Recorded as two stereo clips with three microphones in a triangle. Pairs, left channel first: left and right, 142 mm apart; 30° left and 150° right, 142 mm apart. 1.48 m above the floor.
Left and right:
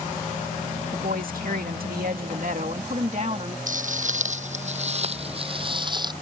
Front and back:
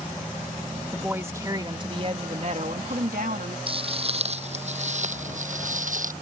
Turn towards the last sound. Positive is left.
turn(degrees=-150)